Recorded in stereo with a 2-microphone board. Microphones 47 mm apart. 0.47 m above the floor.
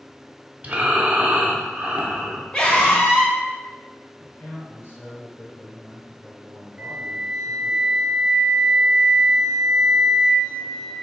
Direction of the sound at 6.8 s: 20° right (ahead or behind).